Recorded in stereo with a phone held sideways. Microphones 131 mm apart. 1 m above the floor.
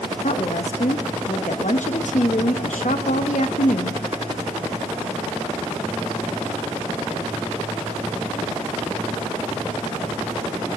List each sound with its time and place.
0.2 s a woman speaking: 70° left (ahead or behind), 1.0 m